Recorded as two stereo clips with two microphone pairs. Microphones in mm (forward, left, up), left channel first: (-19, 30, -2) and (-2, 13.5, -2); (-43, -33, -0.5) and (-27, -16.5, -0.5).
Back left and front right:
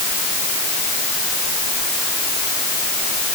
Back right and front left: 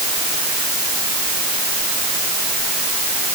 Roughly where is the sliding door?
No sliding door in this recording.